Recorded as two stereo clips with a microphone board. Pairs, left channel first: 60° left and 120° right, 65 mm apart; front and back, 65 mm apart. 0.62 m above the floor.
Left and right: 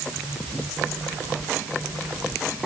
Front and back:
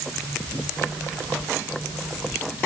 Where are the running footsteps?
I don't hear running footsteps.